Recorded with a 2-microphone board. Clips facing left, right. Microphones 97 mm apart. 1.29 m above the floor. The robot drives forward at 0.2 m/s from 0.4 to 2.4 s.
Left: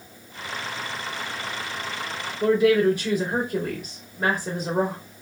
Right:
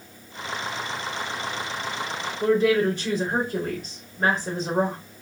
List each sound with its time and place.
2.4 s a woman speaking: 10° left (ahead or behind), 2 m